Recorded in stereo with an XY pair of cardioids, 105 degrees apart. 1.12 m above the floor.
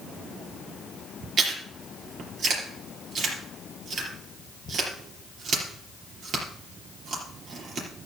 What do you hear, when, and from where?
1.4 s chewing: 55° right, 4.5 m